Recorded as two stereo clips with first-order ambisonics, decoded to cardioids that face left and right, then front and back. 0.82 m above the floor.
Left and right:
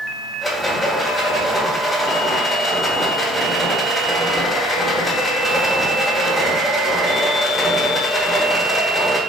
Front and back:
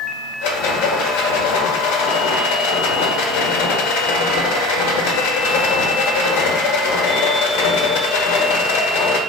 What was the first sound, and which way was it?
A rattle, straight ahead.